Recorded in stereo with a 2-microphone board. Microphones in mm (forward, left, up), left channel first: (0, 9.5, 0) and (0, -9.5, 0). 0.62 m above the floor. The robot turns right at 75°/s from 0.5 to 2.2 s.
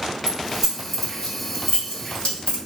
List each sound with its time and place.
0.3 s keys jangling: 30° right (ahead or behind), 1.6 m; by 2.6 s 80° left, 1.6 m